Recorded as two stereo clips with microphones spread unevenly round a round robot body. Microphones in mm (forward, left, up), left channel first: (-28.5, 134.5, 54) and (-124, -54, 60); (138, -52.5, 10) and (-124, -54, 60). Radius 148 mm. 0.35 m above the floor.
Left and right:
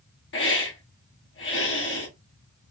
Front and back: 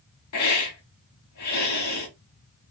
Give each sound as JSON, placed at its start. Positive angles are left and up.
{"t": 0.3, "sound": "a hiss", "azimuth_deg": 25, "distance_m": 1.3}